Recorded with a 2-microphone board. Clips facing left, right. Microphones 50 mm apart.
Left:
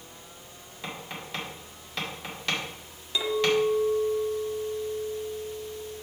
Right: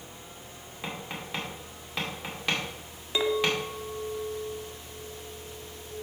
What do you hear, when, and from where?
0.8 s tapping: 10° right (ahead or behind), 2 m
3.1 s a clink: 25° right (ahead or behind), 0.9 m